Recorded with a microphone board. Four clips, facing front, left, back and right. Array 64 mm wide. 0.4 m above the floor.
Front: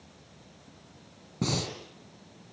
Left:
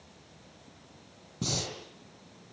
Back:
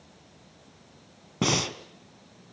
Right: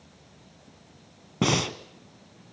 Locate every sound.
1.4 s breathing: 120° right, 1.8 m